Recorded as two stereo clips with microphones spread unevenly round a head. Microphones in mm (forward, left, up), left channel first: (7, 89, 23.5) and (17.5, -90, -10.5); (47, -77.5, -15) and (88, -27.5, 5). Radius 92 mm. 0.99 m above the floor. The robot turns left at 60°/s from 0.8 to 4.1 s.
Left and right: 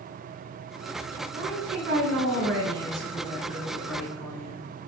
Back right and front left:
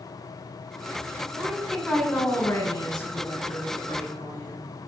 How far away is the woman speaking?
About 8.5 m.